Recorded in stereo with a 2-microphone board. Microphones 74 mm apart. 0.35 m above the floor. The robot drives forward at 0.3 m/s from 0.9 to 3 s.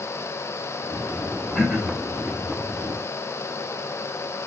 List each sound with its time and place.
1.6 s throat clearing: centre (ahead or behind), 1.2 m